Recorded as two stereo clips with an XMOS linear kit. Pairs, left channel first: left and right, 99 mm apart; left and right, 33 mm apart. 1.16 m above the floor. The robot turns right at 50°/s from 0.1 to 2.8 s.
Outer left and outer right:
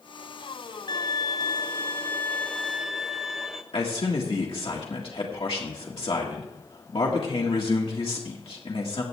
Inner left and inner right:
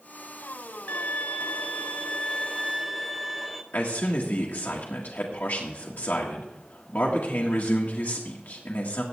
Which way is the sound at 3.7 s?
70° left (ahead or behind).